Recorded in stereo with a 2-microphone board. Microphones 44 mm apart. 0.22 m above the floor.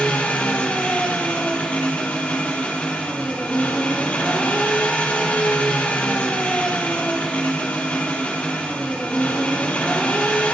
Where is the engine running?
35° left (ahead or behind), 5.5 m.